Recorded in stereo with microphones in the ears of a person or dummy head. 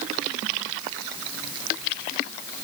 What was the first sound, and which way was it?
Only background noise.